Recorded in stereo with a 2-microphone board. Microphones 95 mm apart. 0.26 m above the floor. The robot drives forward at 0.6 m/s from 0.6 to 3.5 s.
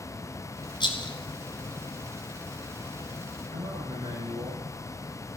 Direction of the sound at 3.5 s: 80° right.